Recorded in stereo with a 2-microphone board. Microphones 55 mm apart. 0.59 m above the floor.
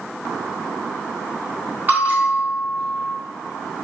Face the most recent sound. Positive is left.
turn(degrees=-35)  # may be behind; listen again after turning